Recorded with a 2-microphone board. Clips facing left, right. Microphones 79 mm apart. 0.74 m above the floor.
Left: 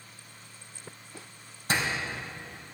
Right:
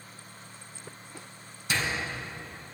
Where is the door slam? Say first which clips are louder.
Left 1 dB; 45° left (ahead or behind), 3.5 m.